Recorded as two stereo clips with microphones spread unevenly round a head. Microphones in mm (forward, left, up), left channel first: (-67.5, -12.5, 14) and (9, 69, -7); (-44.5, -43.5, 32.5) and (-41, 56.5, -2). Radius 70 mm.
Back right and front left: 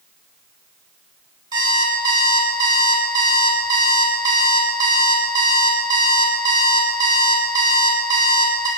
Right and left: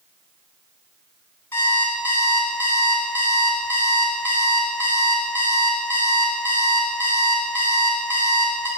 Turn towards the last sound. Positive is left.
turn(degrees=-20)